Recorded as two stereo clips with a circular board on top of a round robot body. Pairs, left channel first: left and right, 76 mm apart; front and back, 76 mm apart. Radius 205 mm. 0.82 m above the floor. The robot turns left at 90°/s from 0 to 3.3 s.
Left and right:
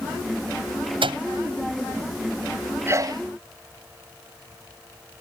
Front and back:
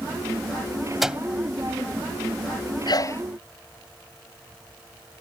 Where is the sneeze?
30° right; by 3.2 s 60° right.